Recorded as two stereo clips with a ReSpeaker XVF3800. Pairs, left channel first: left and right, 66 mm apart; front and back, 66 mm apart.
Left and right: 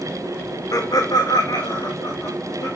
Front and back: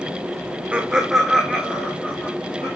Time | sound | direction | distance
0.7 | laughter | 110° left | 1.0 m